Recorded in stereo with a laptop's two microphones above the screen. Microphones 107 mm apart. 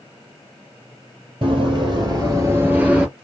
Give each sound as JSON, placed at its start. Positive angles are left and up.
{"t": 1.4, "sound": "running footsteps", "side_deg": -50, "distance_m": 1.5}